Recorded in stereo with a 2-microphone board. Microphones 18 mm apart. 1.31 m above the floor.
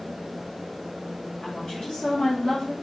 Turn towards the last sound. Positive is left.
turn(degrees=55)  # may be behind; listen again after turning